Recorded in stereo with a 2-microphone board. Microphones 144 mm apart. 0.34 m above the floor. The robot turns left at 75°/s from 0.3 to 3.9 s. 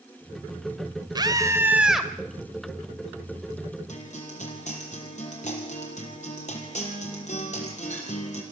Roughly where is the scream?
Behind right.